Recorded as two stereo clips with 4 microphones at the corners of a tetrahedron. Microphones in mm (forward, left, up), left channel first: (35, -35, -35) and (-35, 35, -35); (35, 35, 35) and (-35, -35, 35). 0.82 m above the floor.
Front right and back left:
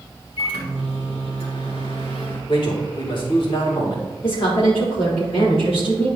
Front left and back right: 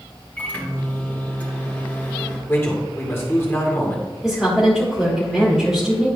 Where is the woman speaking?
50° right, 2 m.